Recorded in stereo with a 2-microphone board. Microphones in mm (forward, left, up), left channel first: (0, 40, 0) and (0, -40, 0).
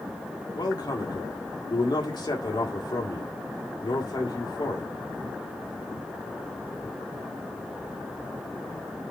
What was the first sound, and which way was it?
A man speaking, 65° left (ahead or behind).